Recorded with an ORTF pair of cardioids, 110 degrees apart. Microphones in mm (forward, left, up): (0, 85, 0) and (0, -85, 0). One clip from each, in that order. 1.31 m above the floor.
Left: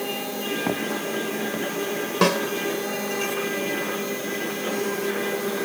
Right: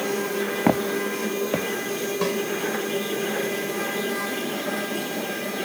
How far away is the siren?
I don't hear a siren.